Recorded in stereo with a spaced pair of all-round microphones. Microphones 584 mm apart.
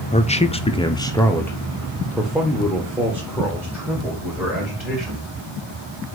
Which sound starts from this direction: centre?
A man speaking, at 0.1 s.